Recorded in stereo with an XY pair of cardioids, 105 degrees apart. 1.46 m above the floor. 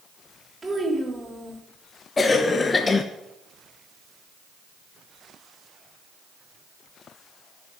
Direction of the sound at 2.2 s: 30° left.